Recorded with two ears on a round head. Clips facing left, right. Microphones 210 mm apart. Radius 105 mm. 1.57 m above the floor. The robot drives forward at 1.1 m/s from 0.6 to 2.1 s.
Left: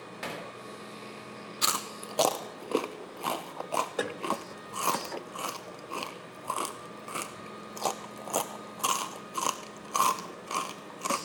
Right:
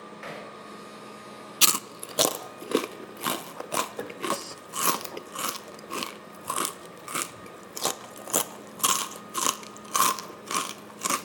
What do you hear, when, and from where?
0.2 s hammering: 55° left (ahead or behind), 5 m
1.6 s chewing: 45° right (ahead or behind), 0.6 m; by 11.3 s 25° right (ahead or behind), 1.1 m